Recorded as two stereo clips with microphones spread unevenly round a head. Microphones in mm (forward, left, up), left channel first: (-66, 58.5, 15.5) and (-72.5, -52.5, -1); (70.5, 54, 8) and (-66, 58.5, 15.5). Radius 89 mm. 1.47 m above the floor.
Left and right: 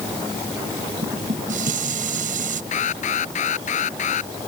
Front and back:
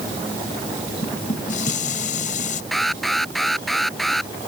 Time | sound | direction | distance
1.0 | dishes clattering | 55° right | ?
2.7 | an alarm | 85° left | ?